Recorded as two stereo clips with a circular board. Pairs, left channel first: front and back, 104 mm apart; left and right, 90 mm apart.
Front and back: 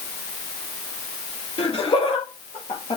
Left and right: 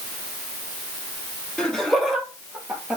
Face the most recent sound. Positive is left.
turn(degrees=-15)